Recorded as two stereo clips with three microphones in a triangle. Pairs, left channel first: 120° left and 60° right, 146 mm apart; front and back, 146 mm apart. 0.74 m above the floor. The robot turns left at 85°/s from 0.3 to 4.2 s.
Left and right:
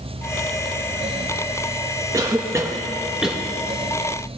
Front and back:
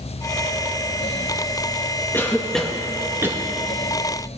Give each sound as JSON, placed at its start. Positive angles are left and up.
{"t": 2.1, "sound": "a cough", "azimuth_deg": -45, "distance_m": 0.7}